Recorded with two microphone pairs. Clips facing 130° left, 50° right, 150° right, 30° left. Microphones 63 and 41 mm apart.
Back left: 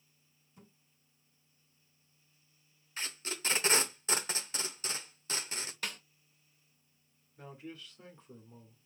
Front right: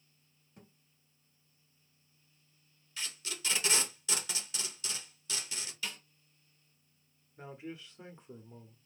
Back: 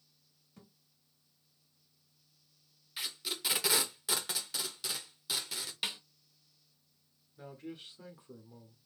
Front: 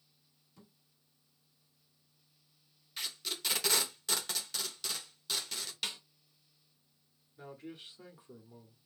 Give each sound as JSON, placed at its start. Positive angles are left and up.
{"t": 0.6, "sound": "a thud", "azimuth_deg": -90, "distance_m": 2.5}
{"t": 3.0, "sound": "tape being pulled", "azimuth_deg": 130, "distance_m": 0.7}
{"t": 5.8, "sound": "a snare drum", "azimuth_deg": 140, "distance_m": 1.0}
{"t": 7.4, "sound": "a man speaking", "azimuth_deg": -50, "distance_m": 1.0}